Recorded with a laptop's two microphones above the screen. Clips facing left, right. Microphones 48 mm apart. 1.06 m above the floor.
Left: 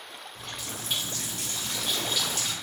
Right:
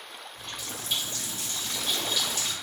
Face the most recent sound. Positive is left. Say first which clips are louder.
# left 1 dB
turn(degrees=75)  # may be behind; listen again after turning